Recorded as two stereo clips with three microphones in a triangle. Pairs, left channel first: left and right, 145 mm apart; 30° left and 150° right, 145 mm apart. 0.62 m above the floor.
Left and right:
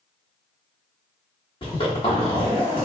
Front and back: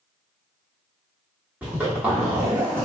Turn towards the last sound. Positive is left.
turn(degrees=135)